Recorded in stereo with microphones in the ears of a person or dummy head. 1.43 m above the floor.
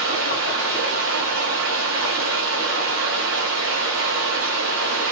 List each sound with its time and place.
0.0 s running water: 55° right (ahead or behind), 1.1 m